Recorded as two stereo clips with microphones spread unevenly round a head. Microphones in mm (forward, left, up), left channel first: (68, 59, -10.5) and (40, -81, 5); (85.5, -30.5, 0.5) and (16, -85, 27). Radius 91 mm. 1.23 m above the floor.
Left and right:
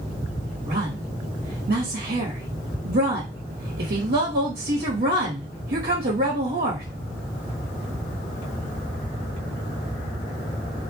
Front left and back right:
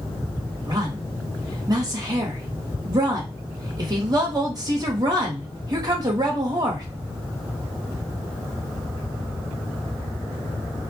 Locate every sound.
0.7 s a woman speaking: 95° right, 1.2 m